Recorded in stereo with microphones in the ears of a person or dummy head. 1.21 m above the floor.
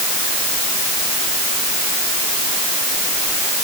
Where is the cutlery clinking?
No cutlery clinking in this recording.